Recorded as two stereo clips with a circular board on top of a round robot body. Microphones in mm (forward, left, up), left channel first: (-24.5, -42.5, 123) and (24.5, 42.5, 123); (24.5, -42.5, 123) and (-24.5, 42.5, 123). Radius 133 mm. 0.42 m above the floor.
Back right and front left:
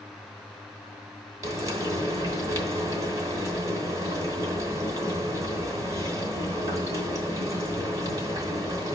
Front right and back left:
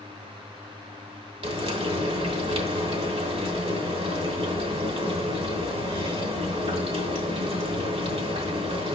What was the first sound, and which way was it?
Frying, 115° left.